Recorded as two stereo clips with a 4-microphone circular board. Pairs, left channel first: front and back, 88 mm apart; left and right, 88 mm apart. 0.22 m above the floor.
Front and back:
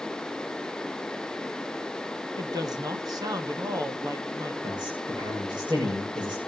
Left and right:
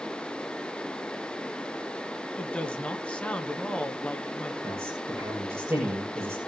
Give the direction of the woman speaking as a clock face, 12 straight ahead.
7 o'clock.